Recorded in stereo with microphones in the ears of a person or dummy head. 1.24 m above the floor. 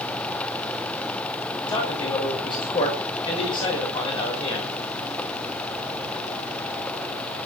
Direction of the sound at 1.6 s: 25° left (ahead or behind).